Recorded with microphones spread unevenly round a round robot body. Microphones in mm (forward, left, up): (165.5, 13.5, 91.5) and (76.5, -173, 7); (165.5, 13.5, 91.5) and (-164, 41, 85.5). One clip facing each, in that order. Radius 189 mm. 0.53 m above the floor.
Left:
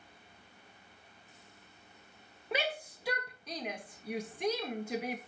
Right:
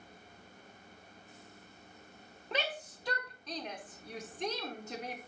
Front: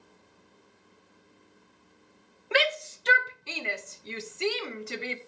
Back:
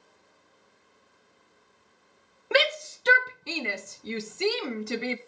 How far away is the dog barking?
No dog barking in this recording.